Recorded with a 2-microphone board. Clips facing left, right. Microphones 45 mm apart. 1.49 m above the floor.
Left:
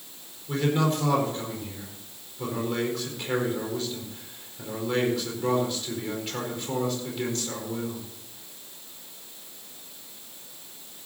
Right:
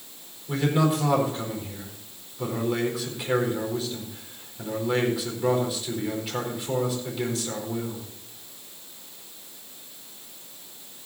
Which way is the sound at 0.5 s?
5° right (ahead or behind).